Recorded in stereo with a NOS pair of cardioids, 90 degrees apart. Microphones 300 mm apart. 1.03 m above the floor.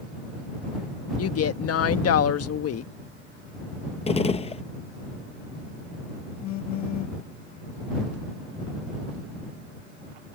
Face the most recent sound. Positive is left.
turn(degrees=65)